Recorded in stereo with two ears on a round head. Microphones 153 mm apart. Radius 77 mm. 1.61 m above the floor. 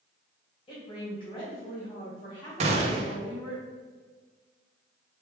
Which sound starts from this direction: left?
A woman speaking, at 0.7 s.